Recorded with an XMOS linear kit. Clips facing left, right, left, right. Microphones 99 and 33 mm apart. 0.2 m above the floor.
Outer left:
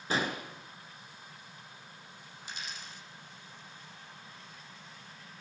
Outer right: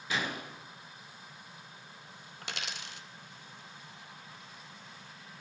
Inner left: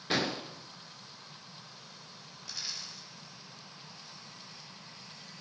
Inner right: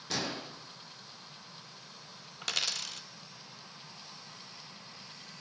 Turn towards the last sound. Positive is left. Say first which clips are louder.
# outer right 3 dB, inner right 8 dB
turn(degrees=-80)